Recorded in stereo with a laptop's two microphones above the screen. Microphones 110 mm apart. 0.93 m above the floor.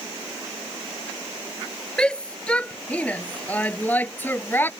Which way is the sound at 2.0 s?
10° left (ahead or behind).